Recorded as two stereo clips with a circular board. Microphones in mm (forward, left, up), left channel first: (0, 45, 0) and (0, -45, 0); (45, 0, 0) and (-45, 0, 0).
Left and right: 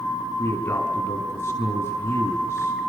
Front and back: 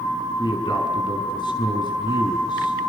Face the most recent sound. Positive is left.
turn(degrees=30)